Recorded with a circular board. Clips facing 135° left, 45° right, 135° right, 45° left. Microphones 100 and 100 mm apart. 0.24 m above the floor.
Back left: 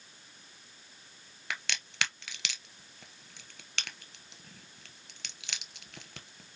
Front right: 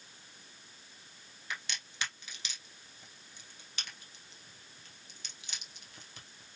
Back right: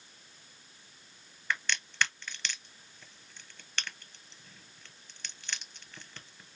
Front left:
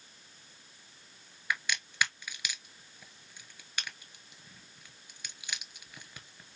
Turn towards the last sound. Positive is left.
turn(degrees=125)